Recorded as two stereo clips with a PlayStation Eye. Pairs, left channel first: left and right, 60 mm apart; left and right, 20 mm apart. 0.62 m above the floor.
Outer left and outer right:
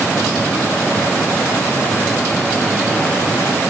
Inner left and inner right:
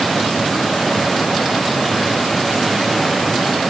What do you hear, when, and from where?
Only background noise.